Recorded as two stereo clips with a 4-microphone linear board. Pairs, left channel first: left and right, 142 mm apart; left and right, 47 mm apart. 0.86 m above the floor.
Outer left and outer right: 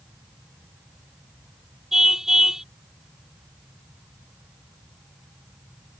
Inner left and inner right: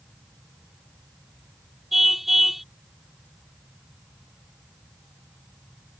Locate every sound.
1.9 s a car horn: 5° right (ahead or behind)